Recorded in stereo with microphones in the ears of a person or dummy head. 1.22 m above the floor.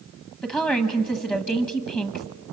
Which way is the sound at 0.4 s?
5° left (ahead or behind).